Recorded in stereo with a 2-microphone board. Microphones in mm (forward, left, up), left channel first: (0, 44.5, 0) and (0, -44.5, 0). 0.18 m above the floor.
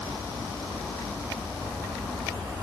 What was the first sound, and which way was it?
Only background noise.